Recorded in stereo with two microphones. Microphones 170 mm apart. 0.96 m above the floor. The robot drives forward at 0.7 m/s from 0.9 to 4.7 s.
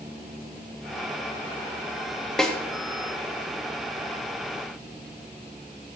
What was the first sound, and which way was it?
A snare drum, 5° left (ahead or behind).